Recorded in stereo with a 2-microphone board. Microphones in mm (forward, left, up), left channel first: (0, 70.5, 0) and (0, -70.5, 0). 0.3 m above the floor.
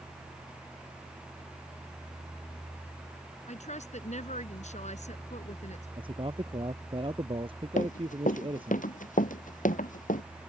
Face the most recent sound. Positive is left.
turn(degrees=85)